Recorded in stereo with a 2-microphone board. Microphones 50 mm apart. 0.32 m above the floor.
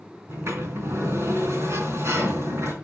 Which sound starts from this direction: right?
A sliding door, at 0.3 s.